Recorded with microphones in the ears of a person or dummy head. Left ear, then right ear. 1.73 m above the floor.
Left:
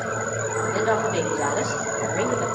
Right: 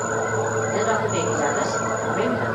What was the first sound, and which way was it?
A woman speaking, 10° left (ahead or behind).